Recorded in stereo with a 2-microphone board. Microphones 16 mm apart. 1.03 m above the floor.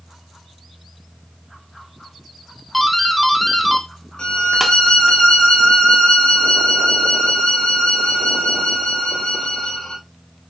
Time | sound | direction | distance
2.7 | a doorbell | 10° left (ahead or behind) | 0.8 m
4.2 | a violin | 70° left (ahead or behind) | 2.5 m